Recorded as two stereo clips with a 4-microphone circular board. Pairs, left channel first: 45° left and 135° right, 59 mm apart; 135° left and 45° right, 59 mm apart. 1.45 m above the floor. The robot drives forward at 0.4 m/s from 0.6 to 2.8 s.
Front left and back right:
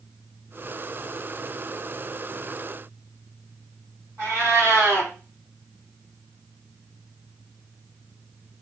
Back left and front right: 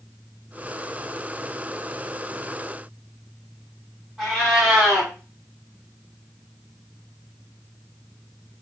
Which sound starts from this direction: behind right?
A cat meowing, at 4.2 s.